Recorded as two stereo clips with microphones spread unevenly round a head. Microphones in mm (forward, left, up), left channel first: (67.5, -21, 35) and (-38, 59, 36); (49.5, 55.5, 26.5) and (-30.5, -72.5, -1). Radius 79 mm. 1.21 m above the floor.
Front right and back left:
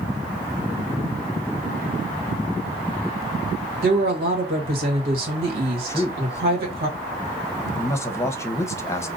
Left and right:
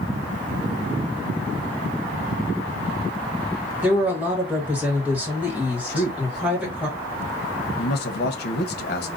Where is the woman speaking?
160° left, 1.7 m.